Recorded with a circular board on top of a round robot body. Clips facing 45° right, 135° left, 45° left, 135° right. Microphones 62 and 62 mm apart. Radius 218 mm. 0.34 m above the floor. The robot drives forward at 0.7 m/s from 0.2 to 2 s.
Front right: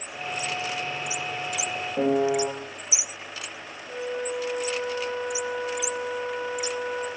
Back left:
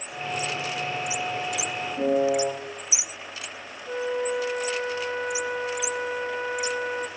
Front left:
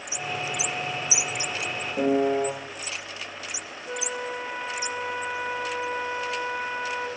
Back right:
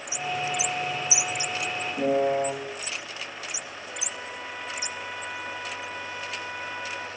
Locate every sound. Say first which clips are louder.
2.0 s a piano: even, front left 1 dB; 15° right, 1.4 m
3.9 s a flute: back left 4 dB, front left 9 dB; 105° left, 1.0 m